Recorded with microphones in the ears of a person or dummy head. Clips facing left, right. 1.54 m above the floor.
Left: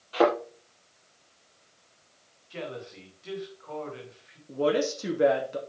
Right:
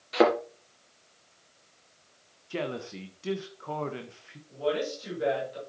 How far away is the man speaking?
About 1.5 m.